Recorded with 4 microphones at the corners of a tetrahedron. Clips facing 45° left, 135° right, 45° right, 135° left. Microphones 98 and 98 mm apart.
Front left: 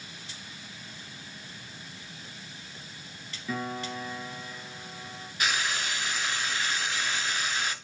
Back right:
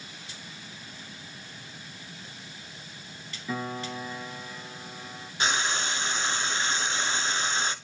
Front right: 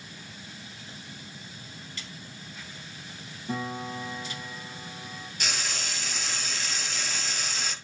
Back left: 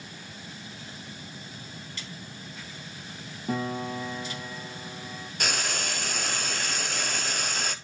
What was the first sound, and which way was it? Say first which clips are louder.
A piano: even, back left 3 dB; 140° left.